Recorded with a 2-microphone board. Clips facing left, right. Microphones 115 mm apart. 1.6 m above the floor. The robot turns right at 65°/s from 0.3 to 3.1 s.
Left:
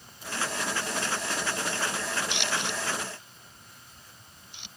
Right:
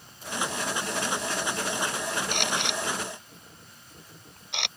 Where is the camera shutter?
45° right (ahead or behind); by 4.7 s 75° right (ahead or behind).